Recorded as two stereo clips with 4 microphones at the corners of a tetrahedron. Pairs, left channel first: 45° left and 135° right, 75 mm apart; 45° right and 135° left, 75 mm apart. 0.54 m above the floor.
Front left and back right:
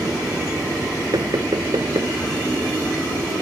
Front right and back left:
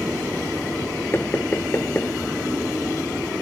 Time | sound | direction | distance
1.1 | knocking | 105° right | ?